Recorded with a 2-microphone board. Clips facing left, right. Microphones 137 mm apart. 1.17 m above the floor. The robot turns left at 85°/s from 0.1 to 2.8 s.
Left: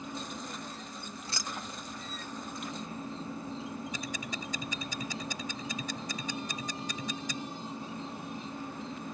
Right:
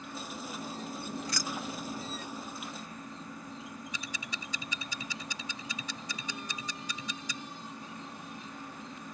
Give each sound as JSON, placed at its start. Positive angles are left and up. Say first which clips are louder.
{"t": 0.0, "sound": "an insect", "louder": "left 1 dB", "azimuth_deg": 20}
{"t": 1.2, "sound": "keys jangling", "louder": "right 4 dB", "side_deg": 35}
{"t": 3.9, "sound": "ticking", "louder": "left 4 dB", "side_deg": 50}